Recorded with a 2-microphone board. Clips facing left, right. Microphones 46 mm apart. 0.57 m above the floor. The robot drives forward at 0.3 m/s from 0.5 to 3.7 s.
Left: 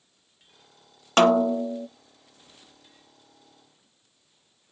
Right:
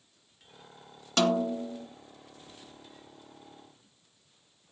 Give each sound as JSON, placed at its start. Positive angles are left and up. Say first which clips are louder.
{"t": 1.2, "sound": "a snare drum", "louder": "left 8 dB", "side_deg": 45, "distance_m": 0.7}